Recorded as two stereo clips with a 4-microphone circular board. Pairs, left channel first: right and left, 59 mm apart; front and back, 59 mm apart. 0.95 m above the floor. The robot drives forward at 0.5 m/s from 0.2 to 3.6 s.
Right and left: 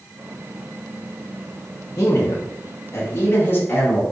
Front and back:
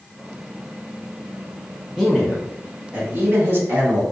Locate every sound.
2.0 s a man speaking: 95° right, 0.7 m; by 4.0 s 145° right, 1.1 m